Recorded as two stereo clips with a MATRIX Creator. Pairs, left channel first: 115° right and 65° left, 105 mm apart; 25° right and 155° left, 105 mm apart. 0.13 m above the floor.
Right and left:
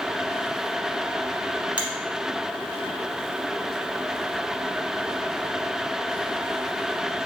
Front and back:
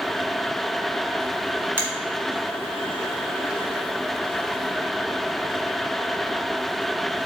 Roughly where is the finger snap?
Behind left.